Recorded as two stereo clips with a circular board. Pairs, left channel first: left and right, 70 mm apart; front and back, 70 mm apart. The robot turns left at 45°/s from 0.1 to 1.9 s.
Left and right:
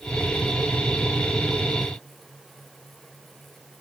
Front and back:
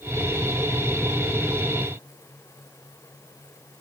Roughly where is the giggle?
No giggle in this recording.